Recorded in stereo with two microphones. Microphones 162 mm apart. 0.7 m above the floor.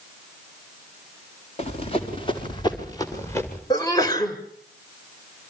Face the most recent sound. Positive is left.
turn(degrees=25)  # may be behind; listen again after turning